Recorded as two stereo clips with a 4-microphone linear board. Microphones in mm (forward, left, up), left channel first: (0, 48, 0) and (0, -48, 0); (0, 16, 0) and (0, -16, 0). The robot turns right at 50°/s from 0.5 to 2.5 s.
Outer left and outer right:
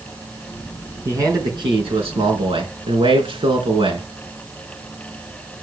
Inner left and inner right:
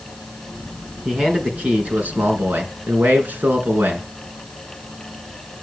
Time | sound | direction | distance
1.1 | a man speaking | 150° right | 3.5 m